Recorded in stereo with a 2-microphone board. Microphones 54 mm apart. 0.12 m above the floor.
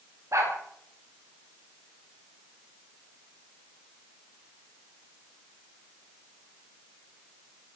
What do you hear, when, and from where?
0.3 s a dog barking: 70° right (ahead or behind), 9 m